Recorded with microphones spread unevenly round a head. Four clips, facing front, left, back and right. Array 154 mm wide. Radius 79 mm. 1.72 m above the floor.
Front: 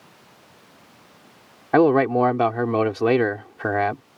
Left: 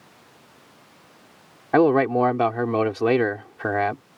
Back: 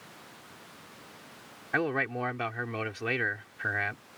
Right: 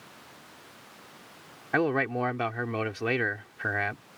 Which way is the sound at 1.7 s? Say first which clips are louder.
Left 9 dB, front 14 dB; 40° left.